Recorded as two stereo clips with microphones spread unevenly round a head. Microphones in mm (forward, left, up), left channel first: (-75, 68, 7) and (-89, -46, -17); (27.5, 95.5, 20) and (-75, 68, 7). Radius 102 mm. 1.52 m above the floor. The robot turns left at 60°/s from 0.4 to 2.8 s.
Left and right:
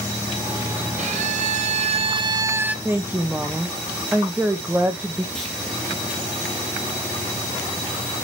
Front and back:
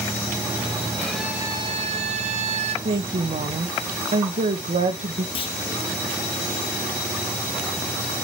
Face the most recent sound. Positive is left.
turn(degrees=5)